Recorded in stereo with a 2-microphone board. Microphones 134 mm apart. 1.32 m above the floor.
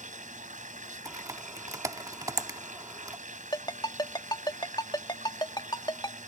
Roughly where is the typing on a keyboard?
Right.